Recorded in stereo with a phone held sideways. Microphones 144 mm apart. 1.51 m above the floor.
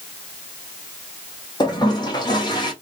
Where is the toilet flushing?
30° left (ahead or behind), 0.9 m.